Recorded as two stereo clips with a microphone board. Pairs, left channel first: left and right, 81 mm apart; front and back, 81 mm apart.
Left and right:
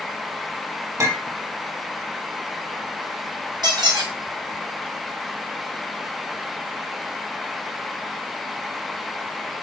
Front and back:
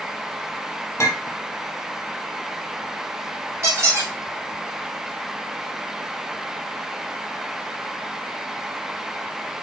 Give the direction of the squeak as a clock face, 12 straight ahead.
4 o'clock.